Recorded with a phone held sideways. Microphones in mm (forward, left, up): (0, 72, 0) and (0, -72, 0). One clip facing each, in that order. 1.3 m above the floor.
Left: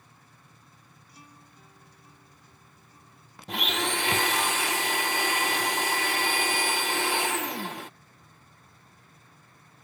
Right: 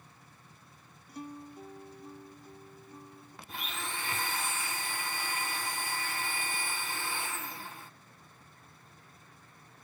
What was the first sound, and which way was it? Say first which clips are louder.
A guitar: right 13 dB; 55° right (ahead or behind).